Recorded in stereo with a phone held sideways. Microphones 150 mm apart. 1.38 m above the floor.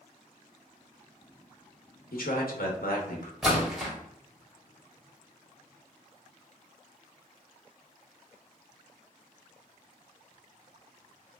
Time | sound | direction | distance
2.1 | a man speaking | 80° left | 0.9 m
3.4 | a splash | 5° right (ahead or behind) | 1.4 m